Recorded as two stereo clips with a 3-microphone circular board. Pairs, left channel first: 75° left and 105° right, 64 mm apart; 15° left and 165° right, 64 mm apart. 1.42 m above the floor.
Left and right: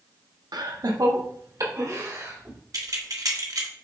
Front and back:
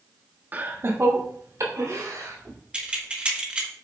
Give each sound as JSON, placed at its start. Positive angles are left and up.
{"t": 0.5, "sound": "laughter", "azimuth_deg": -105, "distance_m": 1.1}
{"t": 2.7, "sound": "keys jangling", "azimuth_deg": -95, "distance_m": 1.3}